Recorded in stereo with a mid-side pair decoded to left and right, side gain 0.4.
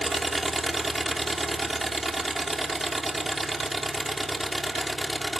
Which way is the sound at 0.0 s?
20° right.